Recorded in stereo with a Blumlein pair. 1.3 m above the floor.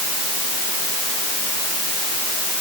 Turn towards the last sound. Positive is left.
No sound to turn to.